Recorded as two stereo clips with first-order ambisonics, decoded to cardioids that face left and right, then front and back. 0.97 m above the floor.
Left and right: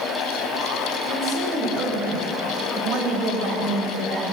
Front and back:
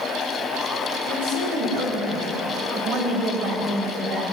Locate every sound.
1.1 s a woman speaking: 175° right, 4.5 m; by 4.2 s 145° right, 4 m